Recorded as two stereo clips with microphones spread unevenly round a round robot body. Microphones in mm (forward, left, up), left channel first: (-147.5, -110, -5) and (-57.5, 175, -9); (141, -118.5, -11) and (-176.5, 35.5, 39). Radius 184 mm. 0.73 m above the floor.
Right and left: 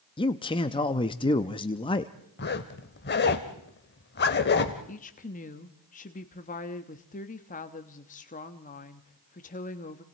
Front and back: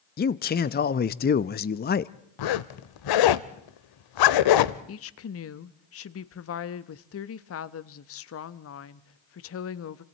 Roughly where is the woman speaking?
Ahead right.